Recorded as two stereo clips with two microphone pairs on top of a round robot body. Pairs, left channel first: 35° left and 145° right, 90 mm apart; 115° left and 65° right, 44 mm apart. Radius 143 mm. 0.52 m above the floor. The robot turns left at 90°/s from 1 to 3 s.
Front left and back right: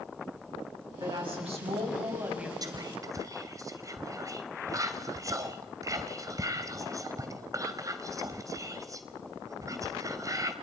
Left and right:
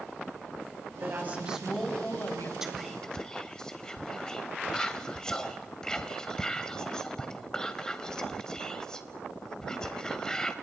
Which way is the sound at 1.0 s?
90° right.